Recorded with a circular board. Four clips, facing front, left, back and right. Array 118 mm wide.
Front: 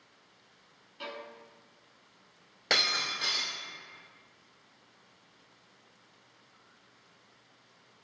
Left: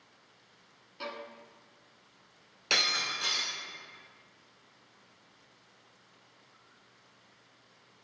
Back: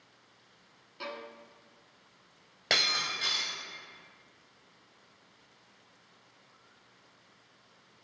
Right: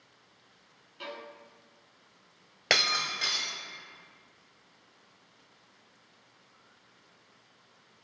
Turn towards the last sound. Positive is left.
turn(degrees=-90)